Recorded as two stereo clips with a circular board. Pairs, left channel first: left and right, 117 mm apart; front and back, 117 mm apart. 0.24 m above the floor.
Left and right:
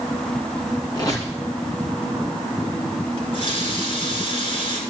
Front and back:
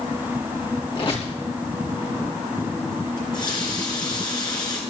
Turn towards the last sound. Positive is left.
turn(degrees=50)